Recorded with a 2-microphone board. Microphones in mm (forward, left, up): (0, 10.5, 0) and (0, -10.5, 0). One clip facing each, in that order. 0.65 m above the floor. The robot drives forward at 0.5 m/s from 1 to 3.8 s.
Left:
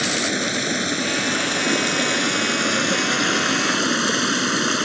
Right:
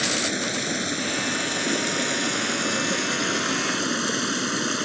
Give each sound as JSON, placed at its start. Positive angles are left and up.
{"t": 0.0, "sound": "running water", "side_deg": 20}